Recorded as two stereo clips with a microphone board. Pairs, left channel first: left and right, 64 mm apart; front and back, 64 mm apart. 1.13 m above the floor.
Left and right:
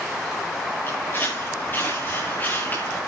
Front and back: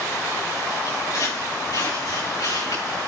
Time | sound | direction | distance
0.9 | footsteps | 35° left | 7 m